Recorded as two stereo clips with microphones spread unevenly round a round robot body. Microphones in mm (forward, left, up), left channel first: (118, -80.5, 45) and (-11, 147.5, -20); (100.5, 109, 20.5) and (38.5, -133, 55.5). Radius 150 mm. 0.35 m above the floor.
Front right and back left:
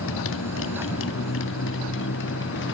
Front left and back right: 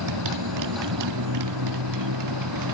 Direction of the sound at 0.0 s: 110° right.